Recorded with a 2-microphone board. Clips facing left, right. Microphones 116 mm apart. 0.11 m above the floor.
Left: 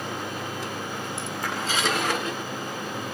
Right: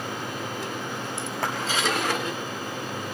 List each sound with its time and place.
1.4 s a clap: 65° right (ahead or behind), 7 m